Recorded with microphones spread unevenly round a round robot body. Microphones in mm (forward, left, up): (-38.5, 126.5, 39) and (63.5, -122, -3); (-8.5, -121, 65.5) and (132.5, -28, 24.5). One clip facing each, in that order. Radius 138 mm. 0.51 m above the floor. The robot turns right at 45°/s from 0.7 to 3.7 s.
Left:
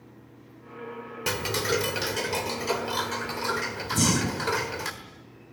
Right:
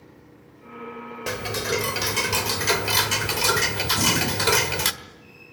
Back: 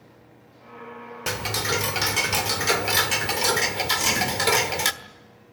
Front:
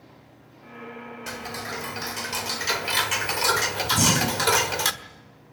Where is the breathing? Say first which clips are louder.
Left 2 dB, front 3 dB; 50° left, 3.5 m.